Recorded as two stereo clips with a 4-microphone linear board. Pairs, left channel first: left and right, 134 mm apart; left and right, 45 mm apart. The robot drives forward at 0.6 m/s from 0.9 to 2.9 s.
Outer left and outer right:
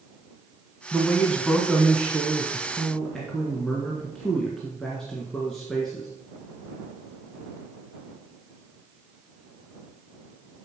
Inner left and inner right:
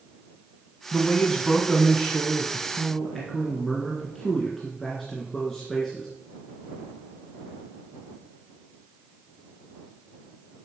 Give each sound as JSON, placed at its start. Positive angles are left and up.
{"t": 0.9, "sound": "a man speaking", "side_deg": 5, "distance_m": 1.1}